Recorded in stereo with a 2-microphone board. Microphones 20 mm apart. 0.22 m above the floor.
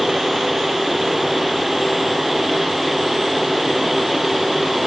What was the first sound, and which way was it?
Only background noise.